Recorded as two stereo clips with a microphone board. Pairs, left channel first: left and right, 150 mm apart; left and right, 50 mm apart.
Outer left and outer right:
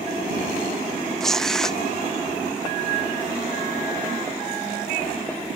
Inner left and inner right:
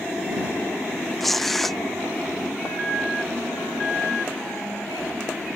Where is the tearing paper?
5° left (ahead or behind).